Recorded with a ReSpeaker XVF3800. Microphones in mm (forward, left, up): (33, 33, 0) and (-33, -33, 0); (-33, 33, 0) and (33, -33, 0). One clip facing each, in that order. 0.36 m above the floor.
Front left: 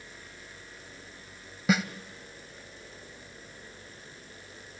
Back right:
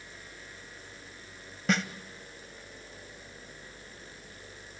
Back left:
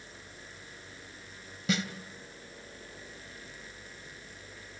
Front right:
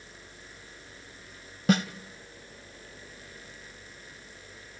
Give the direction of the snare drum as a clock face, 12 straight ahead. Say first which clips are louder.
Front left 3 dB, front right 7 dB; 1 o'clock.